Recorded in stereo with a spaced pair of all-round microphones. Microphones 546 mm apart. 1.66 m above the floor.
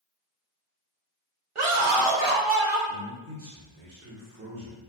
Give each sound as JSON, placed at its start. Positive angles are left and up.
{"t": 1.6, "sound": "a scream", "side_deg": -65, "distance_m": 0.8}
{"t": 2.9, "sound": "a man speaking", "side_deg": -25, "distance_m": 1.0}